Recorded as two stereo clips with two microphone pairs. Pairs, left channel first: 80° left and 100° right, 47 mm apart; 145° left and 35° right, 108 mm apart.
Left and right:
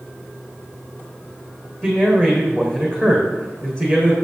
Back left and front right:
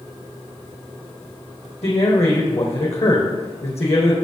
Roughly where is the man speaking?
Behind left.